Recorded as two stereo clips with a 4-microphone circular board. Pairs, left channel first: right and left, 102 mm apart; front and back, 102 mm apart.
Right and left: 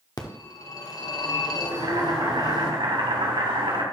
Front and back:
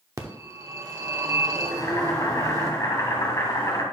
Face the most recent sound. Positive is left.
turn(degrees=60)